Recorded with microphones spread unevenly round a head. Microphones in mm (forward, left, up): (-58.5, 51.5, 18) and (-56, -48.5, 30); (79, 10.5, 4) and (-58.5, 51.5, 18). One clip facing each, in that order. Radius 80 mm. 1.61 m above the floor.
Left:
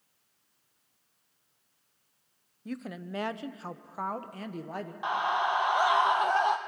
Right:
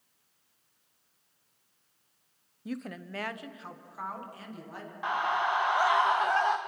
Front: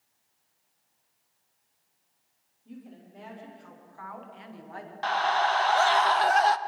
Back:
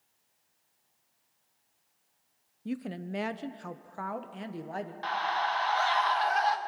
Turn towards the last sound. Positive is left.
turn(degrees=10)